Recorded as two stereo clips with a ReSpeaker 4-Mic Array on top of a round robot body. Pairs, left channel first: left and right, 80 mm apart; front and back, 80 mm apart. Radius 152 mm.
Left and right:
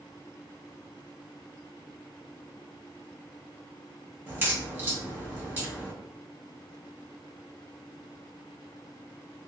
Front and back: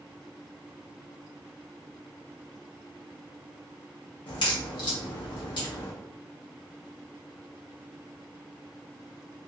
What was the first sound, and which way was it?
A crack, 25° right.